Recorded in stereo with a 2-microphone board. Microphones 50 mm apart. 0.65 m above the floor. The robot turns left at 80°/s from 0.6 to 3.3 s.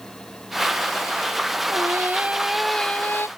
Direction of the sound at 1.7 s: 105° right.